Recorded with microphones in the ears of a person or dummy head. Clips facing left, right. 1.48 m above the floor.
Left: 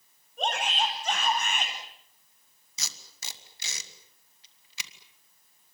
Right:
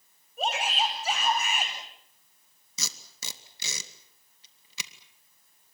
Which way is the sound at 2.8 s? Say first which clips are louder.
Right 4 dB; 75° right (ahead or behind).